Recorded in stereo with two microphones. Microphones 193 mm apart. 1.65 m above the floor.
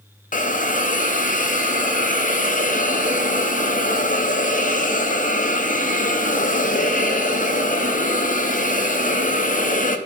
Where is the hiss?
45° left (ahead or behind), 0.5 m.